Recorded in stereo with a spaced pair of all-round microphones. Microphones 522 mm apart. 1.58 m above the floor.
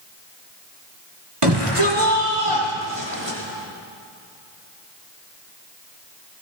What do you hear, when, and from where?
1.4 s a shout: 75° right (ahead or behind), 4.5 m; by 3.4 s 80° right, 5 m